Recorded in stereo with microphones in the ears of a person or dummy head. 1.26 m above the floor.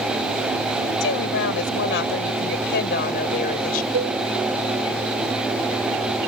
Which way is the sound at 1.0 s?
80° left.